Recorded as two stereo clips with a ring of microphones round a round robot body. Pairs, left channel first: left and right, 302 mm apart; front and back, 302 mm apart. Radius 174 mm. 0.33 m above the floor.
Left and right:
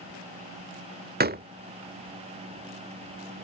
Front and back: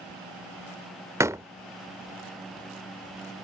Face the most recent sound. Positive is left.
turn(degrees=-105)